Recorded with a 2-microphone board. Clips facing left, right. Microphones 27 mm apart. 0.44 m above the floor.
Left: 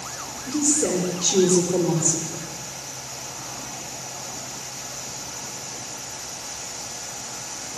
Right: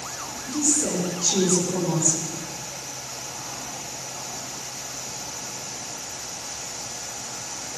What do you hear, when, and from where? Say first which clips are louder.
0.5 s a woman speaking: left 3 dB; 40° left (ahead or behind), 7.5 m